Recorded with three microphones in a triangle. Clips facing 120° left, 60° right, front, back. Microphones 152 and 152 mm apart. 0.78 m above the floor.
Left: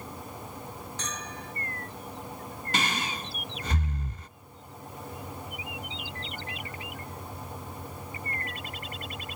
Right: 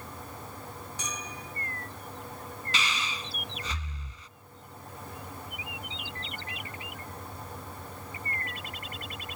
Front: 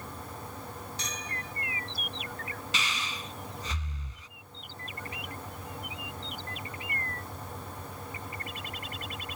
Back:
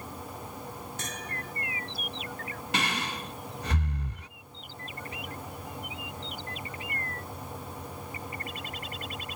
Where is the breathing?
155° left.